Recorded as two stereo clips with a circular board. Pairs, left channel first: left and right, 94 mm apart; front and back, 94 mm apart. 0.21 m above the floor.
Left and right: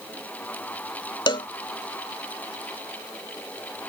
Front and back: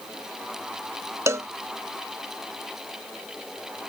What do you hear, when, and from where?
1.3 s a cowbell: 120° left